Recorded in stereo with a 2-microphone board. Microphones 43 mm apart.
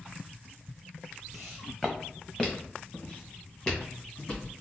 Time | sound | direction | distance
1.3 | footsteps | 5° left (ahead or behind) | 0.7 m